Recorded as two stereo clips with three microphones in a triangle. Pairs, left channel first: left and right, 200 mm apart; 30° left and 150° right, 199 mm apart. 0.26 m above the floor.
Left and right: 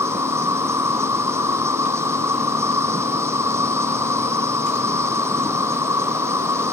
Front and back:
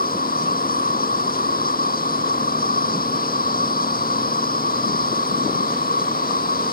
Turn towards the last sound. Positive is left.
turn(degrees=-15)